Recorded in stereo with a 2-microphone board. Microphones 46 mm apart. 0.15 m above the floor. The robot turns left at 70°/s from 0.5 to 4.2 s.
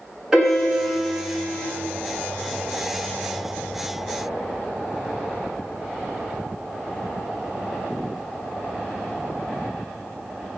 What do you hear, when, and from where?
0.3 s a piano: 155° right, 1.6 m; by 1.6 s 125° left, 1.6 m